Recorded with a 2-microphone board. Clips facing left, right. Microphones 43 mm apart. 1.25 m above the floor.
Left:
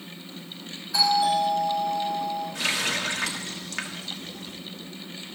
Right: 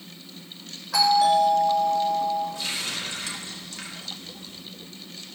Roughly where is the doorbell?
Right.